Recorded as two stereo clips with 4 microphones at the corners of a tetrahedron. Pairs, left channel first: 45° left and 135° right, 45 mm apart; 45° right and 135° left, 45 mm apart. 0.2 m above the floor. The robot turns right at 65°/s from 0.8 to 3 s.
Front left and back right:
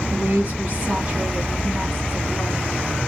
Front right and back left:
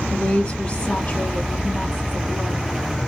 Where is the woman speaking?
105° right, 1.9 m; by 2.7 s 15° left, 1.9 m.